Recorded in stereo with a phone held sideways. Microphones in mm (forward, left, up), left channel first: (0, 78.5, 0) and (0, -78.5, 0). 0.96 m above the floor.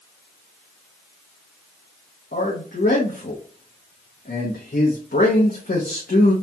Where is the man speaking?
70° left (ahead or behind), 0.8 m.